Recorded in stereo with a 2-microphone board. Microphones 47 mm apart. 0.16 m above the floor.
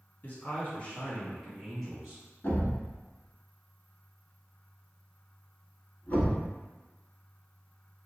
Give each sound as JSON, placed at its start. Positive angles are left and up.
{"t": 0.2, "sound": "a man speaking", "side_deg": 40, "distance_m": 1.3}
{"t": 2.4, "sound": "a thud", "side_deg": 35, "distance_m": 0.9}